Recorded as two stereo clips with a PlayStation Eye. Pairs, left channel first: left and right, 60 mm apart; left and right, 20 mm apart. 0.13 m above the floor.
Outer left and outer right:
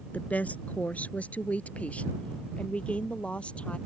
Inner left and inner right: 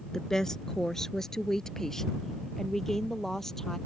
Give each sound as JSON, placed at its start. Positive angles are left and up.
{"t": 0.1, "sound": "a woman speaking", "side_deg": 25}